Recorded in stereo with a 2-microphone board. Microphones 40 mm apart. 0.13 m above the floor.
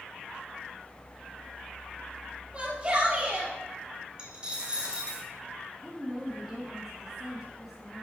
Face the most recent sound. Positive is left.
turn(degrees=-5)  # may be behind; listen again after turning